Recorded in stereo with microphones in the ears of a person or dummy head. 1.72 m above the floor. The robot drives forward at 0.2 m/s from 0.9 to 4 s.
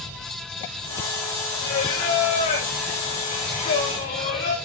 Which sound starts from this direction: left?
Singing, at 1.6 s.